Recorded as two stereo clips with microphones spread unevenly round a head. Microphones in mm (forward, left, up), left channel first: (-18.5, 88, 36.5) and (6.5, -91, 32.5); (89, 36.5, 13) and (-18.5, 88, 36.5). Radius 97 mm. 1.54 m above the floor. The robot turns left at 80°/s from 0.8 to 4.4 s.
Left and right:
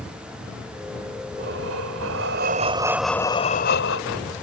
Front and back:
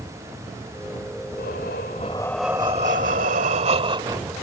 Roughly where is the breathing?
Ahead right.